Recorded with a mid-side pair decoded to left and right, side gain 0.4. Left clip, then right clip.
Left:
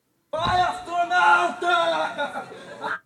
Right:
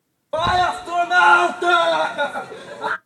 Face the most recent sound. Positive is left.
turn(degrees=-35)